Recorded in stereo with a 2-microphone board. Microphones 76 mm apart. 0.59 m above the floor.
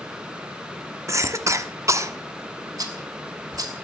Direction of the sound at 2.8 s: 55° right (ahead or behind).